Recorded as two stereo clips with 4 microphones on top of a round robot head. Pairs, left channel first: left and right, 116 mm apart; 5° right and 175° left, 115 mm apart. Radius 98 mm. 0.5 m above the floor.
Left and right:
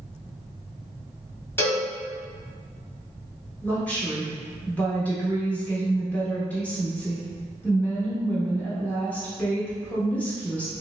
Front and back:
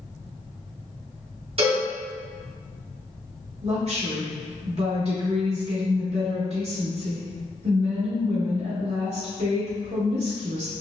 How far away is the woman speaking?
About 1.1 m.